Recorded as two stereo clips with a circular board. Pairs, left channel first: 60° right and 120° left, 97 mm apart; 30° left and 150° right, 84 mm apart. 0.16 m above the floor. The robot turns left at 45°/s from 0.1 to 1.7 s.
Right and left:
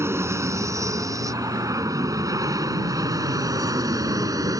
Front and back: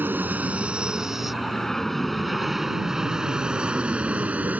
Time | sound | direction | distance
0.0 | an aircraft | 160° left | ?